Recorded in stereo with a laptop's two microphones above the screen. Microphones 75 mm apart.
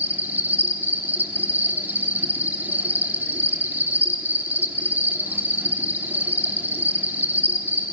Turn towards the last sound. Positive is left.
turn(degrees=-25)  # may be behind; listen again after turning